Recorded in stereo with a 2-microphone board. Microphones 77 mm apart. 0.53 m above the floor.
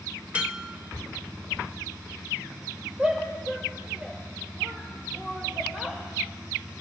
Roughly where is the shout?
Centre.